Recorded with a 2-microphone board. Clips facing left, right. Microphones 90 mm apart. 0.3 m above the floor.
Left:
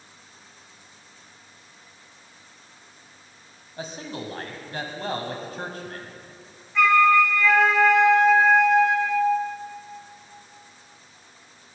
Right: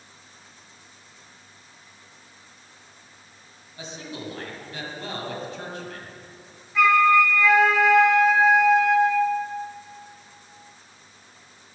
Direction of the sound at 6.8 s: Centre (ahead or behind).